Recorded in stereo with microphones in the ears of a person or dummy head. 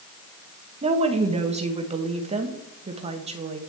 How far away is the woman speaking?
About 1.0 m.